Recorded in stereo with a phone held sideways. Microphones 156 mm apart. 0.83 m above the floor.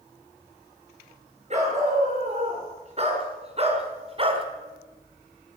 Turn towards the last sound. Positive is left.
turn(degrees=-35)  # may be behind; listen again after turning